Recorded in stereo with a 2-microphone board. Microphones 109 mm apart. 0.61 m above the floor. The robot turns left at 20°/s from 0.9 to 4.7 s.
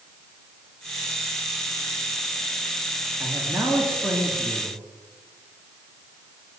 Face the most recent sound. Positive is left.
turn(degrees=0)  # may be behind; listen again after turning